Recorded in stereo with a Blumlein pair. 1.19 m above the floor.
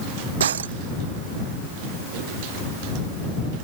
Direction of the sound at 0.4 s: 65° right.